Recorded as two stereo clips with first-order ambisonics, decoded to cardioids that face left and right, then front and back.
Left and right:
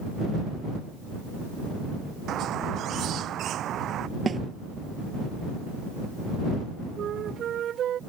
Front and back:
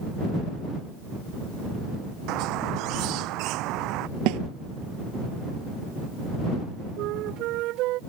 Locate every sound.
2.3 s a squeak: 145° right
4.3 s a snare drum: 160° right
7.0 s a flute: 145° right